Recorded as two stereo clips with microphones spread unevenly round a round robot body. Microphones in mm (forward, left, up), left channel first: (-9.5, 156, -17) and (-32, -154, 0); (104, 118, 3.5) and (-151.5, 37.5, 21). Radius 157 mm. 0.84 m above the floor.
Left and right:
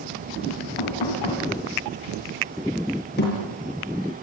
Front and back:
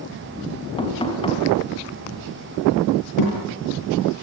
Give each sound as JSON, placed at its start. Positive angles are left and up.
{"t": 0.8, "sound": "knocking", "azimuth_deg": 90, "distance_m": 5.5}
{"t": 3.2, "sound": "a thud", "azimuth_deg": 25, "distance_m": 8.0}